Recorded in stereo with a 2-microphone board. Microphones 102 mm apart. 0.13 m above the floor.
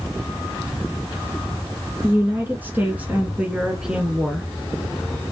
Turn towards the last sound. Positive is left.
turn(degrees=0)  # may be behind; listen again after turning